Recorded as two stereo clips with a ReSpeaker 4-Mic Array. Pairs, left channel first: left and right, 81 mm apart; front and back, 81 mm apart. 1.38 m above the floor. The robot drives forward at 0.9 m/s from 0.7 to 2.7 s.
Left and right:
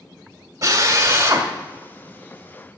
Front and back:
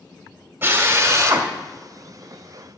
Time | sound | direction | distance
0.6 | a drill | 120° right | 1.6 m